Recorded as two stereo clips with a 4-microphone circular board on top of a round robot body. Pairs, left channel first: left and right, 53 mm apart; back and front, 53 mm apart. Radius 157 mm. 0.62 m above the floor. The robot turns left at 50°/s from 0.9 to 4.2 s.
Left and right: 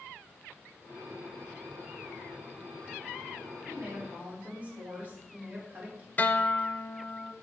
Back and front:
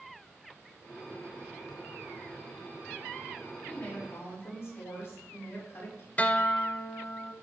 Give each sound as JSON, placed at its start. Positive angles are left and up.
{"t": 3.7, "sound": "a woman speaking", "azimuth_deg": -120, "distance_m": 3.0}
{"t": 6.2, "sound": "a guitar", "azimuth_deg": 130, "distance_m": 0.7}